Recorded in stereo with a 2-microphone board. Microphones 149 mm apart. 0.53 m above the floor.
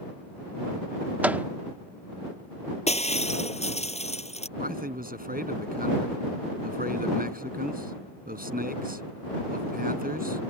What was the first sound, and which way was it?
A microwave, 10° right (ahead or behind).